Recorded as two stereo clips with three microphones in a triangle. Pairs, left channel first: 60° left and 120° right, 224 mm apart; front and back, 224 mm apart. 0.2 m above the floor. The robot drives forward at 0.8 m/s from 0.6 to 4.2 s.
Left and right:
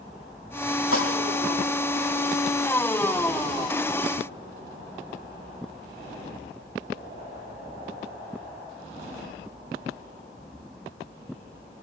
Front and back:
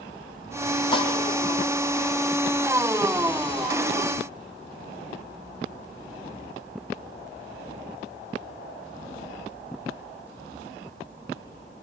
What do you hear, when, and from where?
0.9 s dishes clattering: 70° left, 4.5 m